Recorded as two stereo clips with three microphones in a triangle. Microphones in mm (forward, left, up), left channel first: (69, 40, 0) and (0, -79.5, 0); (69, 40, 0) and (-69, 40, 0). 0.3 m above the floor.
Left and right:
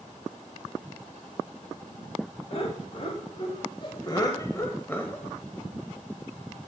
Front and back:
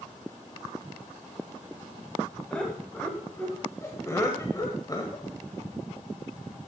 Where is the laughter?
80° left, 1.8 m; by 5.2 s 10° right, 1.4 m.